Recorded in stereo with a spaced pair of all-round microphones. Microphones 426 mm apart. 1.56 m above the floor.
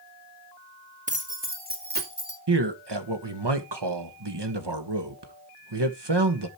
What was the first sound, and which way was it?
Keys jangling, 15° right (ahead or behind).